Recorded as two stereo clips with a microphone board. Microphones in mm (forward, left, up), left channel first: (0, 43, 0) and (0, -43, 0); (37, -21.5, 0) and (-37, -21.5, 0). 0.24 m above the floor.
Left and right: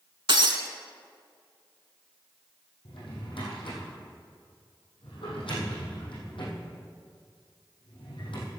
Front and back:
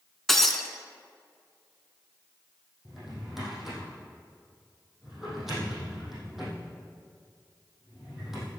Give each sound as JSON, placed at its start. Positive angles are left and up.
{"t": 0.3, "sound": "breaking glass", "azimuth_deg": -85, "distance_m": 1.0}
{"t": 2.9, "sound": "a drawer", "azimuth_deg": 95, "distance_m": 4.0}